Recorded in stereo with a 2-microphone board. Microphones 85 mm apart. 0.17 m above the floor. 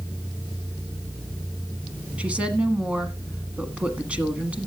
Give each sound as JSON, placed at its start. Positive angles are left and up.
{"t": 2.2, "sound": "a woman speaking", "side_deg": -15, "distance_m": 1.4}